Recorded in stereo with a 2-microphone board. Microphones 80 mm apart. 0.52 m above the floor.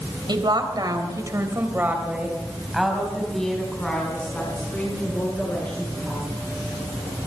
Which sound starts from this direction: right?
A woman speaking, at 0.3 s.